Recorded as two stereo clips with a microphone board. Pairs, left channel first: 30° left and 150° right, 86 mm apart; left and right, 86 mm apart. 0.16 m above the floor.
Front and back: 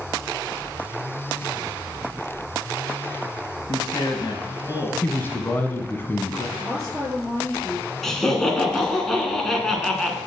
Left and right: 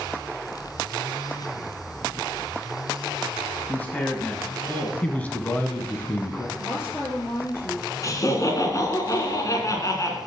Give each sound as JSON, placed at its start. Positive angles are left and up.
{"t": 3.7, "sound": "a man speaking", "azimuth_deg": 20, "distance_m": 2.0}
{"t": 5.0, "sound": "a man speaking", "azimuth_deg": 40, "distance_m": 1.1}
{"t": 6.6, "sound": "a woman speaking", "azimuth_deg": 155, "distance_m": 4.0}
{"t": 8.0, "sound": "laughter", "azimuth_deg": 115, "distance_m": 1.7}